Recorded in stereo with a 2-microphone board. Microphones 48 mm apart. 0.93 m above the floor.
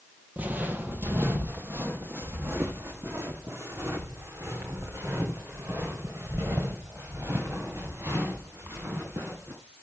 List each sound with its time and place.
0.4 s footsteps: 35° right (ahead or behind), 1.3 m; by 9.5 s 65° right (ahead or behind), 6 m